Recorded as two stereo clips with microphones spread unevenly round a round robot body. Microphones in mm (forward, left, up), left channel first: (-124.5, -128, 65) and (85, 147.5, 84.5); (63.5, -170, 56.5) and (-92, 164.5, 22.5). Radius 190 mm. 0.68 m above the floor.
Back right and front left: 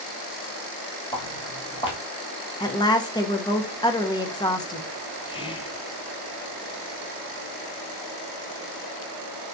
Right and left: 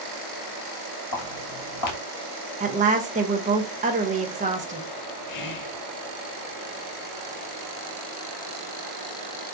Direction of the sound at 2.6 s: 165° left.